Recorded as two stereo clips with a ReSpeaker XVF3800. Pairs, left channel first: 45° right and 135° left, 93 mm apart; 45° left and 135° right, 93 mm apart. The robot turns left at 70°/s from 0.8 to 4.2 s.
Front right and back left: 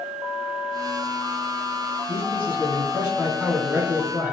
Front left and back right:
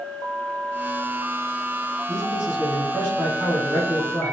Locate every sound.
2.1 s a man speaking: 30° right, 1.9 m; by 4.3 s straight behind, 1.9 m